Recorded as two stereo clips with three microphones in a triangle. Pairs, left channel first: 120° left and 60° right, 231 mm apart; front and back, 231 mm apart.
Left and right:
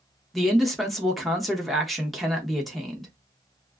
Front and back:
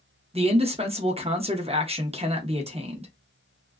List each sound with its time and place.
0.3 s a man speaking: 150° right, 0.7 m